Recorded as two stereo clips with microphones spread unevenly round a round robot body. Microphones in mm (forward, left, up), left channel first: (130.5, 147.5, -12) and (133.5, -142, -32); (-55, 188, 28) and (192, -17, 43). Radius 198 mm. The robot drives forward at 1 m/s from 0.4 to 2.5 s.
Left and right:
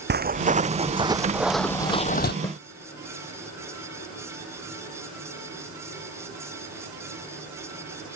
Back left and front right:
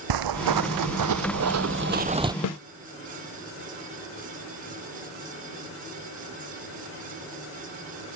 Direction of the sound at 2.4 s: 170° left.